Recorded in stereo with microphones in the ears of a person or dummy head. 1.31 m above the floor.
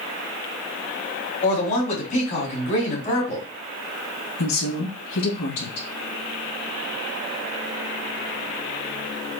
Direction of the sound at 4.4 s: 80° left.